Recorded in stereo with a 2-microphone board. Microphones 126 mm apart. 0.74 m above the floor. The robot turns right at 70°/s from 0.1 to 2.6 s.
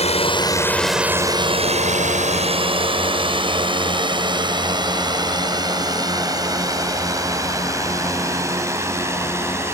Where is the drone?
55° left (ahead or behind); by 9.7 s 20° right (ahead or behind).